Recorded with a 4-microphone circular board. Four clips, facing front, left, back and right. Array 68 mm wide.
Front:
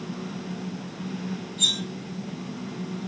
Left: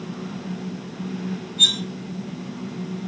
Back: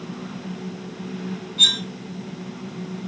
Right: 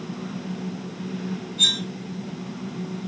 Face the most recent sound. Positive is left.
turn(degrees=170)